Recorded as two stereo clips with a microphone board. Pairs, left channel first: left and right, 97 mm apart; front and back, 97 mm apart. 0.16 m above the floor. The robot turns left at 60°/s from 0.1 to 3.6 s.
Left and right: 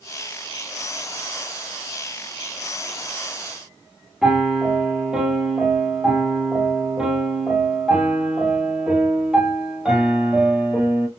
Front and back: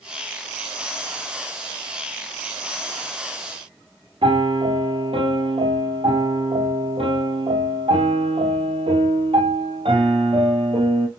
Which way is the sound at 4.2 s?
170° right.